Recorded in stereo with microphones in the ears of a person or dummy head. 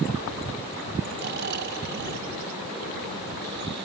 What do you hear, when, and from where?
1.2 s snoring: 55° right (ahead or behind)